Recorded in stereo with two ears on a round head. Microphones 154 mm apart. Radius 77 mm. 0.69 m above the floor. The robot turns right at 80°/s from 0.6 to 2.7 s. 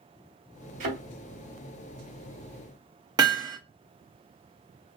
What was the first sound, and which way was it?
A thud, 45° right (ahead or behind).